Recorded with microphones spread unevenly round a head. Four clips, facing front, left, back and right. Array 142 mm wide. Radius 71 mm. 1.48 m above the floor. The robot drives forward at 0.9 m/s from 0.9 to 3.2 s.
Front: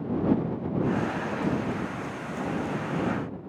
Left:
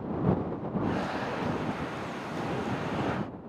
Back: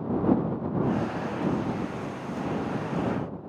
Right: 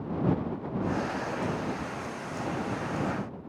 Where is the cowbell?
No cowbell in this recording.